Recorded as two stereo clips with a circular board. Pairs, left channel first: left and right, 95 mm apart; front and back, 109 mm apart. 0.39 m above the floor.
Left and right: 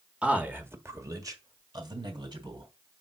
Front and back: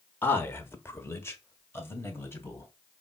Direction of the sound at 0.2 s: 30° right.